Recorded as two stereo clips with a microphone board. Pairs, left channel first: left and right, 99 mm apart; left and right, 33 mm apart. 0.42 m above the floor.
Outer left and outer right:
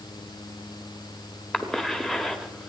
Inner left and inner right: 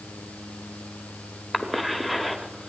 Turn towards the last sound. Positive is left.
turn(degrees=5)  # may be behind; listen again after turning